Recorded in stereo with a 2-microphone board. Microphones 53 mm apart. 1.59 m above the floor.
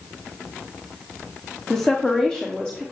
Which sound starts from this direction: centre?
A woman speaking, at 1.7 s.